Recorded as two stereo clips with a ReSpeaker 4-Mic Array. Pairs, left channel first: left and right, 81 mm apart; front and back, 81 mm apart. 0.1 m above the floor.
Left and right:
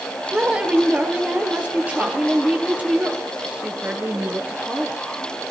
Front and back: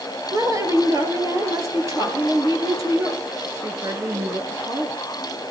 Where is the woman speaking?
160° right, 2.5 m.